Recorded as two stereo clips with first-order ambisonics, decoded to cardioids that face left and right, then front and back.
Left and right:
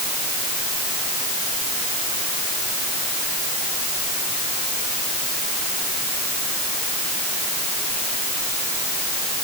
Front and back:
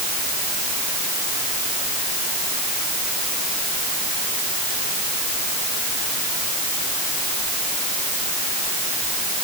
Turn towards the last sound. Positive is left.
No sound to turn to.